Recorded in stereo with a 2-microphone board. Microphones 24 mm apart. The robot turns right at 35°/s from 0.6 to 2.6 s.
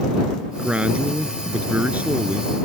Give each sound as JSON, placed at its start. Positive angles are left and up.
{"t": 0.6, "sound": "a man speaking", "azimuth_deg": -135}